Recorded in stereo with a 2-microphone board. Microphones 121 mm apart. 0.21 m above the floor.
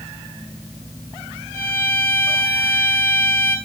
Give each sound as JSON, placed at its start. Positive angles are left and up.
{"t": 1.5, "sound": "a violin", "side_deg": 20, "distance_m": 4.0}